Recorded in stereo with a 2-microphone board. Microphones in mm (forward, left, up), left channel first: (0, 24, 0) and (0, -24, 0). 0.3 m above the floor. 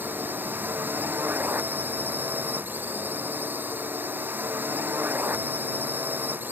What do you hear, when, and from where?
0.0 s a drone: 40° right (ahead or behind)